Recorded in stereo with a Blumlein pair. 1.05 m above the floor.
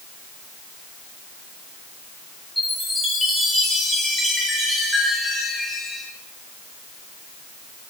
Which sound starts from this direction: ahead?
A chime, at 2.6 s.